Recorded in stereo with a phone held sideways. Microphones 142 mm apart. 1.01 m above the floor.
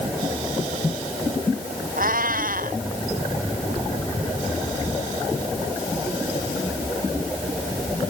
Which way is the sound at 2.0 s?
80° right.